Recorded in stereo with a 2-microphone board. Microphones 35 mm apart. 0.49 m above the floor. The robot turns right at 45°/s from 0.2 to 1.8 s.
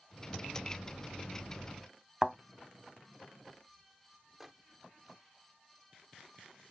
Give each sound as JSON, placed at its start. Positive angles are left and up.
{"t": 2.2, "sound": "a thud", "side_deg": -15}
{"t": 4.4, "sound": "a microwave", "side_deg": -10}